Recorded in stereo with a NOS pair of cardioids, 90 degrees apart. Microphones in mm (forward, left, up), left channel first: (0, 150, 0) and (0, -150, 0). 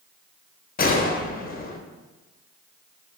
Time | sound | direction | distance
0.8 | a gunshot | 30° left | 1.1 m